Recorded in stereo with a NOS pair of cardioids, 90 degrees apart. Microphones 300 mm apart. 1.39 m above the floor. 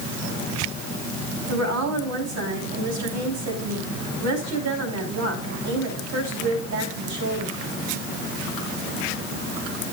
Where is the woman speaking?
65° right, 5 m.